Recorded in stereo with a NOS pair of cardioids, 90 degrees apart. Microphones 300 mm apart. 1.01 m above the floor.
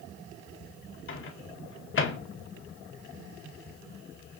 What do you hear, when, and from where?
1.1 s a microwave: 45° left, 2 m